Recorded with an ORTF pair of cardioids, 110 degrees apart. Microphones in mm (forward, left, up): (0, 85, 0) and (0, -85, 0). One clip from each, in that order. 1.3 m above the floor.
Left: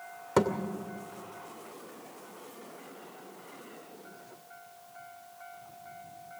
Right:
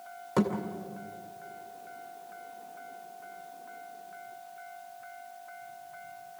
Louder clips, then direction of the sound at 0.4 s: Left 3 dB; 30° left.